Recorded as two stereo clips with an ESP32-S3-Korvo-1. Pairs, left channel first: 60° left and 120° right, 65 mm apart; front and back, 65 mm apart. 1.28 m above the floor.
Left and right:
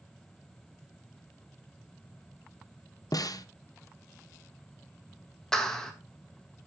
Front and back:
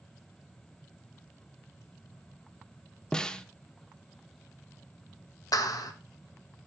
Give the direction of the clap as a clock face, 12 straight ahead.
1 o'clock.